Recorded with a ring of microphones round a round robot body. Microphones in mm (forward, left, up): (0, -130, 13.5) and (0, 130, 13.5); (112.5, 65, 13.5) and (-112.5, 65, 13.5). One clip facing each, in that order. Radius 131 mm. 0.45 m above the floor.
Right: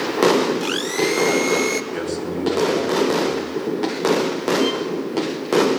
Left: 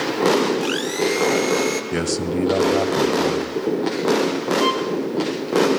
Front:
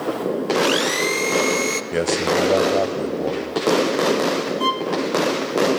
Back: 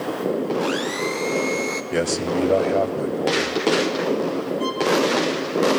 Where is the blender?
5° right, 1.3 m.